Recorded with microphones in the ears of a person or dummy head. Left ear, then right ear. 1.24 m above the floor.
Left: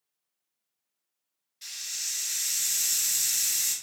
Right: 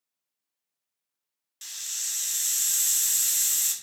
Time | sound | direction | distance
1.6 | a hiss | 45° right (ahead or behind) | 0.6 m